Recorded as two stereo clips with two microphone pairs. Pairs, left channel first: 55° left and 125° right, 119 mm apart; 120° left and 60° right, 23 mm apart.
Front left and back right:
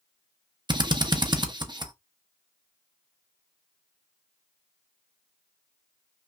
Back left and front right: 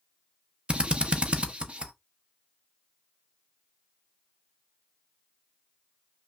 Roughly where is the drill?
Right.